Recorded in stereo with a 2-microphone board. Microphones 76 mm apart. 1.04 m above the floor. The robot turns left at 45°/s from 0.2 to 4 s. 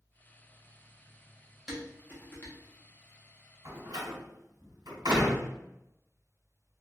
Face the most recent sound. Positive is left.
turn(degrees=-80)